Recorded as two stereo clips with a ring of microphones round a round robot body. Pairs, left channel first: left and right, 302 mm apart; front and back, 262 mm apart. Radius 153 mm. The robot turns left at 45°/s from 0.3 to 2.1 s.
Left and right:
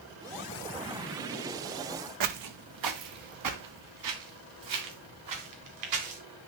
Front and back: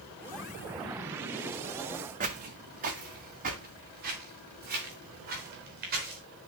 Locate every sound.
2.2 s footsteps: 115° right, 1.1 m